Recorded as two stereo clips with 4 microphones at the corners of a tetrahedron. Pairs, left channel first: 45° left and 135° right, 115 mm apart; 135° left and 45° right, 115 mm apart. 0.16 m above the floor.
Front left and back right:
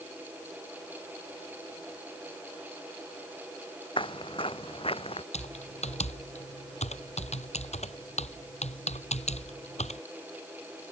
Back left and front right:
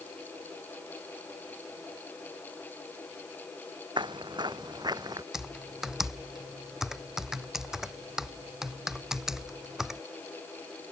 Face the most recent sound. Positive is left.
turn(degrees=40)